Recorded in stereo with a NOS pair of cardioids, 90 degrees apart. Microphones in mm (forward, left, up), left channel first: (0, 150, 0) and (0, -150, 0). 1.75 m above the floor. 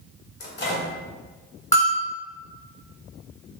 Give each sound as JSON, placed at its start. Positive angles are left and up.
{"t": 0.4, "sound": "a microwave", "azimuth_deg": 35, "distance_m": 1.0}
{"t": 1.7, "sound": "a bell", "azimuth_deg": 10, "distance_m": 1.3}